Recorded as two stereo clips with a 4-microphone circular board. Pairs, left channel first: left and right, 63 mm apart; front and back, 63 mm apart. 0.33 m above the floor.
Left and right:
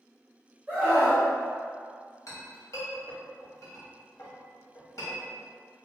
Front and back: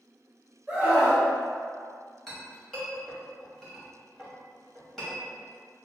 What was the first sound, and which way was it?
A scream, 120° right.